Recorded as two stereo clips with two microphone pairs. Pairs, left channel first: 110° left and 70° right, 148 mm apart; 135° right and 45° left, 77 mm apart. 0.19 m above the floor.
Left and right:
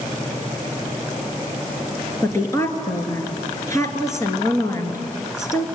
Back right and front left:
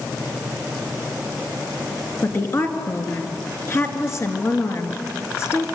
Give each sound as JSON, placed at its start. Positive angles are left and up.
{"t": 2.2, "sound": "a woman speaking", "azimuth_deg": 175, "distance_m": 3.0}